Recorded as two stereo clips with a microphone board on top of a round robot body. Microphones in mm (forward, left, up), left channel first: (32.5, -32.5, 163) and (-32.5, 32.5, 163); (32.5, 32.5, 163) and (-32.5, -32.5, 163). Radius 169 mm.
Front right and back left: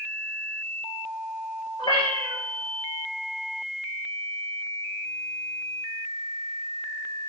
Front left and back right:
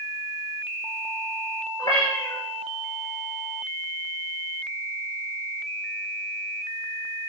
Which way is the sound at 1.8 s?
5° right.